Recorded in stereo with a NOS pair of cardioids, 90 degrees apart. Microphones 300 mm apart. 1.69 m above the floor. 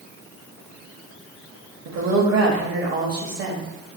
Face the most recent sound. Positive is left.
turn(degrees=-45)